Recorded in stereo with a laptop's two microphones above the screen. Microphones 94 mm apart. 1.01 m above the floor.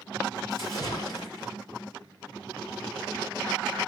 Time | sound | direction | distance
0.5 | a splash | 50° left (ahead or behind) | 2.0 m